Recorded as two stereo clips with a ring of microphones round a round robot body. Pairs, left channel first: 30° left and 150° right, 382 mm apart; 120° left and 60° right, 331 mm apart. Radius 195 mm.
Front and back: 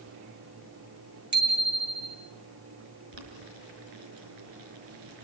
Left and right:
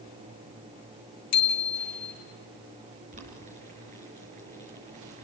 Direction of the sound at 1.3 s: 150° left.